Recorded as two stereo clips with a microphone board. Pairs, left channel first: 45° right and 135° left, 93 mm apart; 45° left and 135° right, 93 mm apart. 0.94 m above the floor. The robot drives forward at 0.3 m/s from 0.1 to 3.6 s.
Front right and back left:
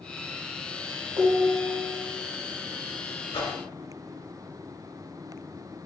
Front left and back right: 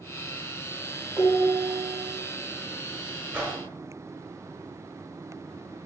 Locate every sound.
1.2 s dishes clattering: 155° left, 2 m; by 2.1 s 160° left, 2.5 m
3.3 s a whoosh: 70° right, 1.6 m